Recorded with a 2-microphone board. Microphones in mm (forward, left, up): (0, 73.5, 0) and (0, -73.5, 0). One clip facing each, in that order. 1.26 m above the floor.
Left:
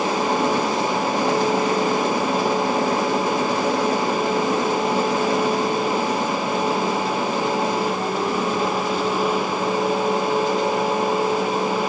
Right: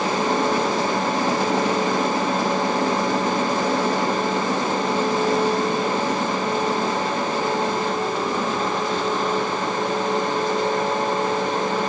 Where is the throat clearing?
I don't hear throat clearing.